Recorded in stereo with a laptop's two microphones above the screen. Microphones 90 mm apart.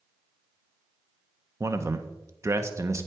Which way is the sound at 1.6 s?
30° right (ahead or behind).